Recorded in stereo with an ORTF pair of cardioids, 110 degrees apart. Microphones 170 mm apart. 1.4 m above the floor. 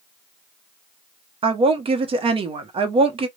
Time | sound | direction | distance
1.4 | a woman speaking | 35° right | 0.9 m